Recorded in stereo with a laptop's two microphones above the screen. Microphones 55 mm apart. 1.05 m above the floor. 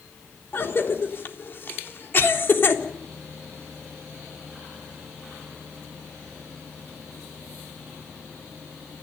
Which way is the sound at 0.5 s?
45° left (ahead or behind).